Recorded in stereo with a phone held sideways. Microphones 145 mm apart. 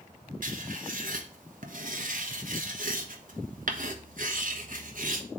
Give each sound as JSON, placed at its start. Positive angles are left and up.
{"t": 0.4, "sound": "writing", "side_deg": -70, "distance_m": 1.2}